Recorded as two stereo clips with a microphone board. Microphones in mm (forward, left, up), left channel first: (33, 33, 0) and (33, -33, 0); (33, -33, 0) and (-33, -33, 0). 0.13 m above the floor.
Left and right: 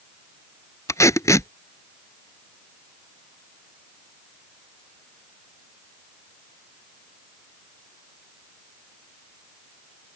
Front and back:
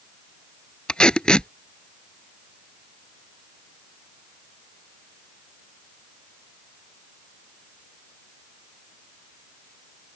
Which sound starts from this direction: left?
Tape being pulled, at 0.9 s.